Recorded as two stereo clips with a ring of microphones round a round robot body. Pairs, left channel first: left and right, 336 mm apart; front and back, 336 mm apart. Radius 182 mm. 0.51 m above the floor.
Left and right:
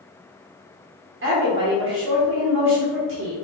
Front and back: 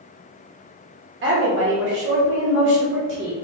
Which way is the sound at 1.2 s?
135° right.